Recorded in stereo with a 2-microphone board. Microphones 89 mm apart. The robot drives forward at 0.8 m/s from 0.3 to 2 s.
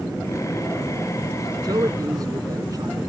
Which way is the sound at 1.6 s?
50° right (ahead or behind).